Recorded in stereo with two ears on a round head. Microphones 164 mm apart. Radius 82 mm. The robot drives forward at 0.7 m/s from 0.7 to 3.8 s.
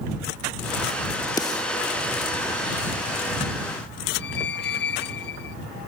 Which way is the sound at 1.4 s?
20° left (ahead or behind).